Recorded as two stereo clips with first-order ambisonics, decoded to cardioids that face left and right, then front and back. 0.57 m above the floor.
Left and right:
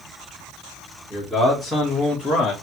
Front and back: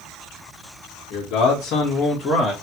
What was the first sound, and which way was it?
A man speaking, 5° right.